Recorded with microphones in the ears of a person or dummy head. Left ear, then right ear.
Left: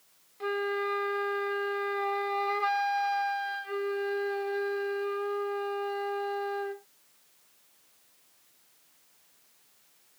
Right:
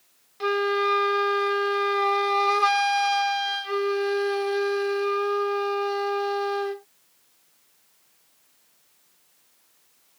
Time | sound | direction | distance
0.4 | a flute | 50° right (ahead or behind) | ?